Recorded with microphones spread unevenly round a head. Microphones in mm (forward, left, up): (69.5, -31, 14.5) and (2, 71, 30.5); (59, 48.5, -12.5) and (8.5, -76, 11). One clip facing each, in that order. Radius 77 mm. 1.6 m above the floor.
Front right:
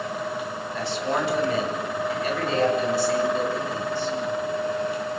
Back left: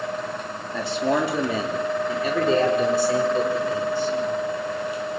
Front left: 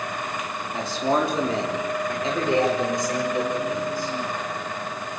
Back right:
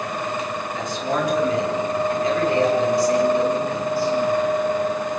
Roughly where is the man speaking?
Behind left.